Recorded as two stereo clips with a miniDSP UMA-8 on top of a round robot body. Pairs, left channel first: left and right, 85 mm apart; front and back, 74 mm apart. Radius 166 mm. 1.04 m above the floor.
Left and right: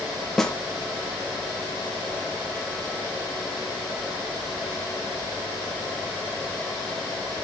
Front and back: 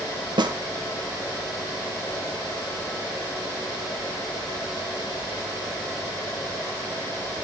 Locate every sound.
0.4 s a snare drum: 175° left, 1.1 m